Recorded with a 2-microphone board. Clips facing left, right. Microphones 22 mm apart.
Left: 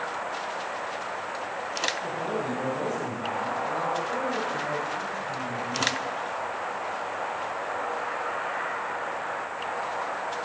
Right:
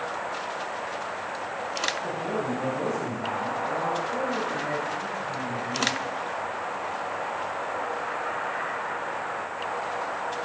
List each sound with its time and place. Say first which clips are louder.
2.0 s a man speaking: right 1 dB; 30° left (ahead or behind), 4.5 m